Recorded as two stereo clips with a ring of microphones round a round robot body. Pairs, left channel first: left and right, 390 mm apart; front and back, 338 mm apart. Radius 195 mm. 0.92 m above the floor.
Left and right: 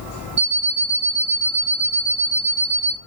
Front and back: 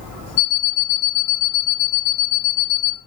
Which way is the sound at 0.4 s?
25° right.